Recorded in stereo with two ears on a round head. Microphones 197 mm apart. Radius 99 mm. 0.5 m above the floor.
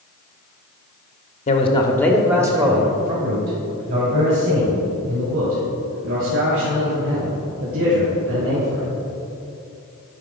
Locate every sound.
1.5 s a man speaking: 35° left (ahead or behind), 0.8 m; by 8.9 s 65° right (ahead or behind), 4.5 m